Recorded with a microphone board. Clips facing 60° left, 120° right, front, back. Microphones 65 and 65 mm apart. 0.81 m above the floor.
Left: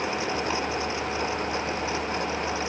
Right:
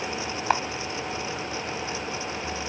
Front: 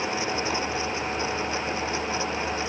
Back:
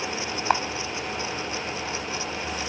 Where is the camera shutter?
160° right, 1.4 m.